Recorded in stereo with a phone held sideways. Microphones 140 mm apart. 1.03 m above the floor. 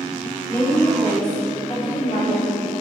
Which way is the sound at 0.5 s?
20° left (ahead or behind).